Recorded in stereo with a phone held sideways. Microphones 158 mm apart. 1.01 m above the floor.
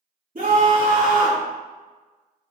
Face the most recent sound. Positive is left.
turn(degrees=-60)  # may be behind; listen again after turning